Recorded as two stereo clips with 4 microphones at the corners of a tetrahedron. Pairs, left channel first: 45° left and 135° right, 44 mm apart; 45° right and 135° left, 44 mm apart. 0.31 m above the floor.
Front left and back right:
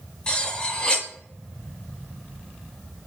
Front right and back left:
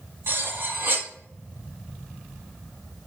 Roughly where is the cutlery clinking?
Behind left.